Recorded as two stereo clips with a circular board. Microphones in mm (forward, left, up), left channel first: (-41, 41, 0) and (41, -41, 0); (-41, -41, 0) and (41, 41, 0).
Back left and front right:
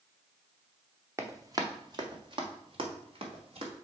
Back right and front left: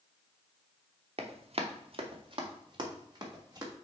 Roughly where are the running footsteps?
Ahead.